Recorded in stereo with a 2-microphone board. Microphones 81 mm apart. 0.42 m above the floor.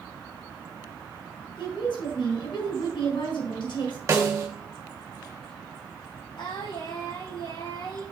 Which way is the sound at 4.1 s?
40° right (ahead or behind).